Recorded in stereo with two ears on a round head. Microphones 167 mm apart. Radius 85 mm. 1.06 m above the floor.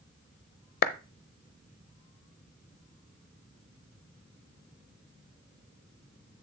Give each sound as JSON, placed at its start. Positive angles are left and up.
{"t": 0.8, "sound": "a clap", "side_deg": 50, "distance_m": 0.7}